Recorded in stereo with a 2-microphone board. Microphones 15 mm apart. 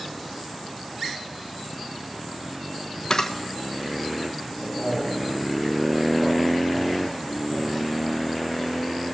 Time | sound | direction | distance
3.1 | a camera shutter | 40° left (ahead or behind) | 1.0 m
4.6 | a man speaking | 20° right (ahead or behind) | 4.5 m